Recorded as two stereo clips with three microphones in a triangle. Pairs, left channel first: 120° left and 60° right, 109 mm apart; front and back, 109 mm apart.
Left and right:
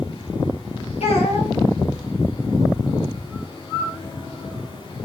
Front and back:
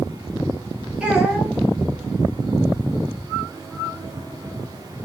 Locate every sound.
1.0 s a child speaking: 100° left, 0.8 m